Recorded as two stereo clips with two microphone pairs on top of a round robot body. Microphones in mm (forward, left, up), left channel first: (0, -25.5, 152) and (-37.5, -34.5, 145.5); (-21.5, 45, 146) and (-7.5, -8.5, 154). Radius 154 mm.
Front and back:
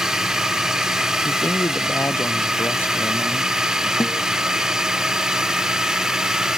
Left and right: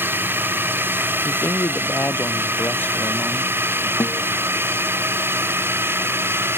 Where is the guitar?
55° left.